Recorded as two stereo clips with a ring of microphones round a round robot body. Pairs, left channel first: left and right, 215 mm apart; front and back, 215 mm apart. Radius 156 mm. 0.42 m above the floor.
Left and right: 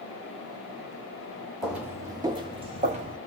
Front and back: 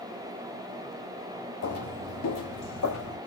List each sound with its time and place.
1.6 s footsteps: straight ahead, 1.9 m; by 3.2 s 35° right, 2.5 m